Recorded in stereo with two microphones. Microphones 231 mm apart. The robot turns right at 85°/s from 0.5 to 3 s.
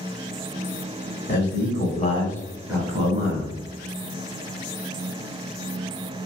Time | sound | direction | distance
1.3 | a man speaking | 75° left | 1.4 m